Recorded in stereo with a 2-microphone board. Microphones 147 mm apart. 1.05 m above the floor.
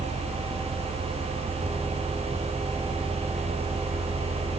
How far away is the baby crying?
I don't hear a baby crying.